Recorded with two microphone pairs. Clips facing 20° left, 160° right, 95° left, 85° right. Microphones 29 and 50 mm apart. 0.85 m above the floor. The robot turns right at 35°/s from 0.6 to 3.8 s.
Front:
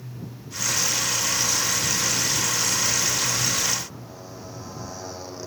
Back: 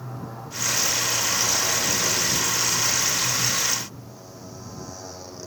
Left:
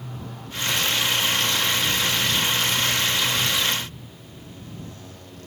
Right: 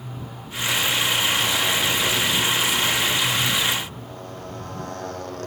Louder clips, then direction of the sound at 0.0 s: Back 4 dB, right 1 dB; 170° right.